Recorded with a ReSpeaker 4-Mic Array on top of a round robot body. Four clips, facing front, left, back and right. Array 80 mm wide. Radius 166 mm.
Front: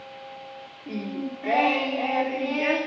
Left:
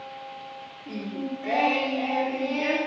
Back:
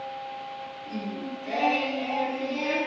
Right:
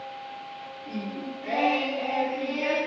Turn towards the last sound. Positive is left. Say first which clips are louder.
# left 3 dB, front 4 dB
turn(degrees=10)